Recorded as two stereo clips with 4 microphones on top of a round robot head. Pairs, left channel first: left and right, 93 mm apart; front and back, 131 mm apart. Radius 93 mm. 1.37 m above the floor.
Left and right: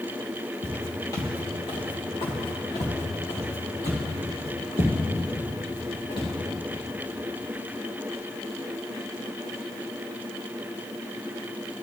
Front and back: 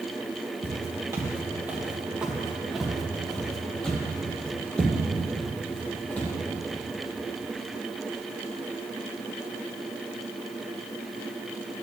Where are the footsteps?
140° left, 1.6 m; by 6.3 s 75° left, 4 m.